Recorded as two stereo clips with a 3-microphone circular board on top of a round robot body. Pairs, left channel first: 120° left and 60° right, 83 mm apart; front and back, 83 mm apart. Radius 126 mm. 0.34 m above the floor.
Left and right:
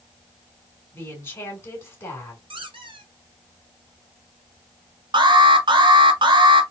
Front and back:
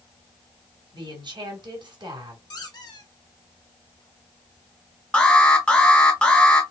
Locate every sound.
0.9 s a woman speaking: 175° left, 2.5 m
2.5 s a squeak: 40° right, 1.6 m
5.1 s an alarm: 75° right, 1.6 m